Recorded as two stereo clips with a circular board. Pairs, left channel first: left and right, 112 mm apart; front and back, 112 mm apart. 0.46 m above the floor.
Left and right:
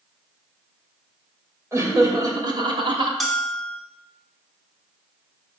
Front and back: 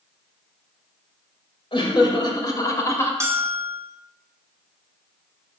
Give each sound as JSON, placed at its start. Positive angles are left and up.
{"t": 1.7, "sound": "laughter", "azimuth_deg": -30, "distance_m": 1.7}
{"t": 3.2, "sound": "a bell", "azimuth_deg": 180, "distance_m": 1.3}